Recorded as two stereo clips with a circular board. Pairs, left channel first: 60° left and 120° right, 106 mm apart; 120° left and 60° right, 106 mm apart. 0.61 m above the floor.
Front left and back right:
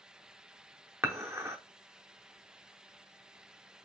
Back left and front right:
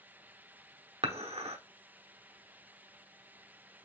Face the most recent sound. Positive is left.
turn(degrees=-55)